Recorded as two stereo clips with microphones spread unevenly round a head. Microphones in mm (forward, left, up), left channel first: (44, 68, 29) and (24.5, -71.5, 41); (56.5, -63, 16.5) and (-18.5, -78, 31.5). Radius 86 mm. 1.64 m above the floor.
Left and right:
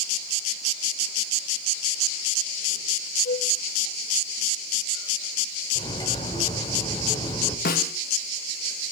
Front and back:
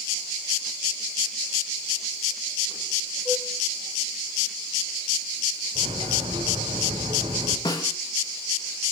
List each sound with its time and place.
3.2 s a flute: 115° left, 6.5 m
5.8 s cutlery clinking: 150° left, 4 m
7.7 s a snare drum: 70° left, 3 m